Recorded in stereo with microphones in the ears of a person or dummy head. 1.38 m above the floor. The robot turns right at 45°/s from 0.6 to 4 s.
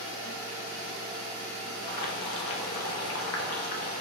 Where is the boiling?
50° left, 0.6 m; by 4.0 s 145° left, 0.6 m.